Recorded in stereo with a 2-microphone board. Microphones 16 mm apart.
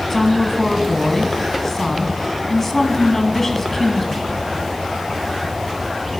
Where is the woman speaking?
20° left (ahead or behind), 1.8 m.